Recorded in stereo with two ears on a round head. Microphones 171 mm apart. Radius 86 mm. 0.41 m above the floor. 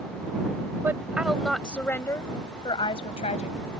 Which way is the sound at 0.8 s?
10° right (ahead or behind).